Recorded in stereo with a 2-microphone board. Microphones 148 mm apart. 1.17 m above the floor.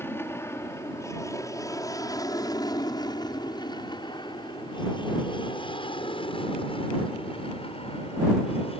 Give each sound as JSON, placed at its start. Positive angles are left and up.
{"t": 0.0, "sound": "an aircraft", "side_deg": 15}